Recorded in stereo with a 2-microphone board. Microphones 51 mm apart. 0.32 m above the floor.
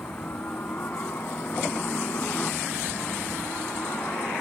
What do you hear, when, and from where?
0.0 s a helicopter: 40° left (ahead or behind); by 4.4 s 45° left (ahead or behind)